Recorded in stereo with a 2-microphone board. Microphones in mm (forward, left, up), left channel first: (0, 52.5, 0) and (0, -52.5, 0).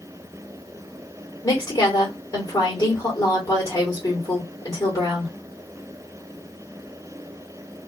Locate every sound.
1.4 s a woman speaking: 30° left (ahead or behind), 1.7 m